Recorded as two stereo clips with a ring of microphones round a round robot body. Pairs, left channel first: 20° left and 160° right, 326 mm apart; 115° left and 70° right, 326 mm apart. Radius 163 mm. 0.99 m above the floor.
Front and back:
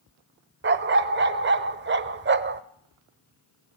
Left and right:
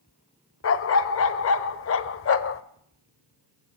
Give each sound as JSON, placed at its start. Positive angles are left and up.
{"t": 0.6, "sound": "a dog barking", "azimuth_deg": 150, "distance_m": 1.0}